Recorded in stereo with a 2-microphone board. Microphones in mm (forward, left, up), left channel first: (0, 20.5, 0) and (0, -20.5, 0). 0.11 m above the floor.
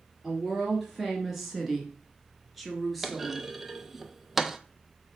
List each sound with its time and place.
0.2 s a woman speaking: 5° right (ahead or behind), 2 m; by 3.5 s 5° left (ahead or behind), 2.5 m
3.0 s a clunk: 10° right (ahead or behind), 0.5 m